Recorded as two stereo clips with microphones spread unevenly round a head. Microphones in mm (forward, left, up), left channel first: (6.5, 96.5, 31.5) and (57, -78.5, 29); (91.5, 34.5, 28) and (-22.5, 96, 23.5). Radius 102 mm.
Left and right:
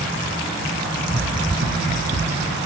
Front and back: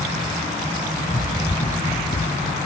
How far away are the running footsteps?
About 1.1 m.